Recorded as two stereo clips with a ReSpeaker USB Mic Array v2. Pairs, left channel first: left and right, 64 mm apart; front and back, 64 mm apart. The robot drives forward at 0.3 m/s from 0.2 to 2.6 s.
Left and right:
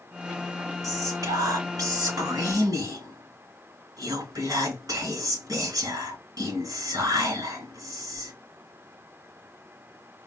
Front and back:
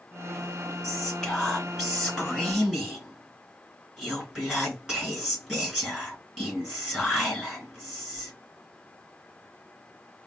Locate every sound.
0.8 s whispering: 90° right, 3.5 m; by 8.3 s 100° right, 3.5 m